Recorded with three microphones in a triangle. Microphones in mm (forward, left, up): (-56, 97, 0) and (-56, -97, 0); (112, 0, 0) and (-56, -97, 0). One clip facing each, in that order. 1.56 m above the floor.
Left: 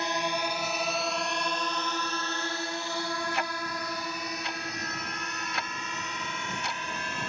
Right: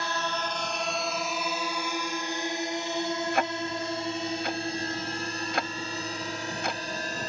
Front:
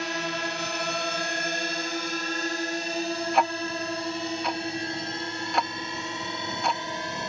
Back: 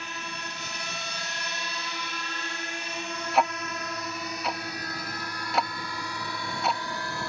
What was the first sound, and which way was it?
A drone, 20° left.